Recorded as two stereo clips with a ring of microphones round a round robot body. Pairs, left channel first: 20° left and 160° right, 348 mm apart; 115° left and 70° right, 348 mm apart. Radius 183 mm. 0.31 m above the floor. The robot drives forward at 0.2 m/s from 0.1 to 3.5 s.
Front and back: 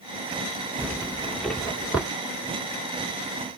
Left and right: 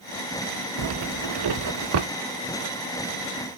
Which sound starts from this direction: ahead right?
A zipper, at 0.8 s.